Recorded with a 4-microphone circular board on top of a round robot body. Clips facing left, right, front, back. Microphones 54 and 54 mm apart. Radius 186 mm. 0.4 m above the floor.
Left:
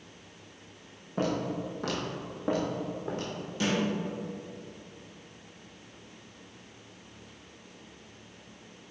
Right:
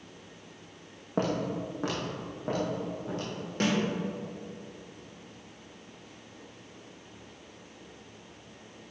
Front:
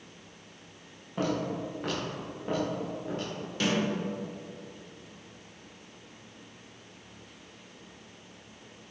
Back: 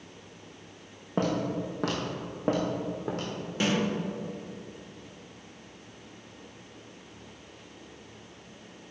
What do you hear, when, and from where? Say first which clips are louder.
1.2 s footsteps: right 1 dB, back 2 dB; 135° right, 1.7 m; by 3.3 s 155° left, 2 m
3.6 s a snare drum: right 2 dB, back 1 dB; 115° right, 2 m